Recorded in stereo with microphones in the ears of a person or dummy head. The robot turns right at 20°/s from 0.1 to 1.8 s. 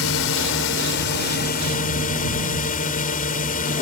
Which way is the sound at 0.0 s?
105° left.